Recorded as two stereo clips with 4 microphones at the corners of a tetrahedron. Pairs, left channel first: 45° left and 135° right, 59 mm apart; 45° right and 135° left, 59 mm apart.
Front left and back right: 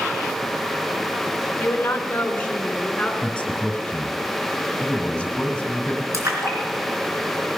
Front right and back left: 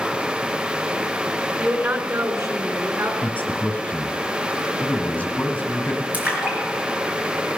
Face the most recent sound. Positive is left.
turn(degrees=-160)